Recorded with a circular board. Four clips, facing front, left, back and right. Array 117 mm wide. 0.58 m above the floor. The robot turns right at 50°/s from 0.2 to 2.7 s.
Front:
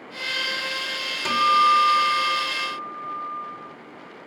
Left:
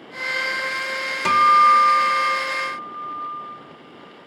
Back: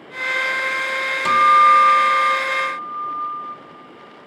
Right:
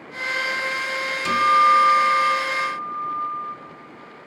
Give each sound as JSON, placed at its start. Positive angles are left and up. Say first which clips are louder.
{"t": 1.2, "sound": "a guitar", "louder": "left 3 dB, back 6 dB", "azimuth_deg": 95, "distance_m": 1.8}